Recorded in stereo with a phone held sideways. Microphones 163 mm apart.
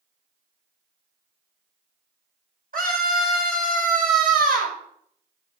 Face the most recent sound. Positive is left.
turn(degrees=-70)  # may be behind; listen again after turning